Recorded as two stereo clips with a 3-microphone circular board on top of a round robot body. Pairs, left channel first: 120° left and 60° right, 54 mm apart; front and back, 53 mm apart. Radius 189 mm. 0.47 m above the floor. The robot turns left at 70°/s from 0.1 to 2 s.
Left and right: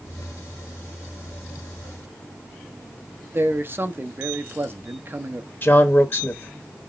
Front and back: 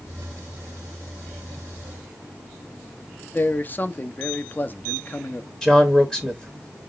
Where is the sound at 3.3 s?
40° right, 1.0 m.